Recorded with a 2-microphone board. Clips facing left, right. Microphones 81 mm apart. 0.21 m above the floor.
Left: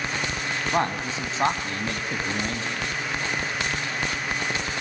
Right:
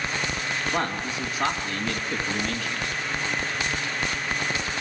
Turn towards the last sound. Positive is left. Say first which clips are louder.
# left 5 dB
turn(degrees=25)  # may be behind; listen again after turning